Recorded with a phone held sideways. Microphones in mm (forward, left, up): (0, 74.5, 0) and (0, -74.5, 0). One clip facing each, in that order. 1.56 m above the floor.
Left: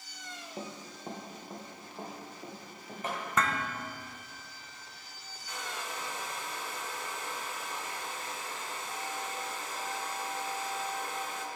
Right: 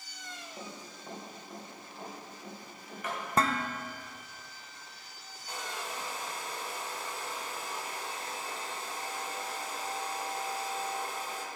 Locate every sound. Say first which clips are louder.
0.6 s running footsteps: left 6 dB; 25° left (ahead or behind), 2 m; by 3.2 s 30° left (ahead or behind), 5.5 m
3.4 s dishes clattering: right 3 dB; 35° right (ahead or behind), 0.7 m
5.5 s a hair dryer: right 1 dB; 35° right (ahead or behind), 1.7 m